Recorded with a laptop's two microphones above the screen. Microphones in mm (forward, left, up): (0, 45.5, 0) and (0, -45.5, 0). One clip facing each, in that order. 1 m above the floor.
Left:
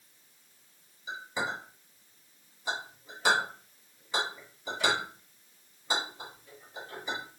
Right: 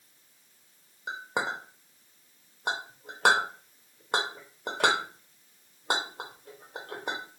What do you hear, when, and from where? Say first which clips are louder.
1.1 s a clink: right 3 dB; 55° right (ahead or behind), 0.8 m